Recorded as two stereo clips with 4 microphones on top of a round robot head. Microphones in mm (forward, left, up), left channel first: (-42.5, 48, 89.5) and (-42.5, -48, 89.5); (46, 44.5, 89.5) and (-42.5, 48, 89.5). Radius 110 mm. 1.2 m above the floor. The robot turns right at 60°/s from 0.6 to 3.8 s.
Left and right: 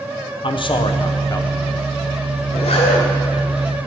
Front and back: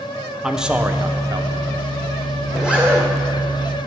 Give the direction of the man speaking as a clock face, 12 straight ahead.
9 o'clock.